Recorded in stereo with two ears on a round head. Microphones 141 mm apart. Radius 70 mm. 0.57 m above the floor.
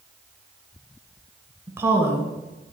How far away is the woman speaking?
About 2.5 m.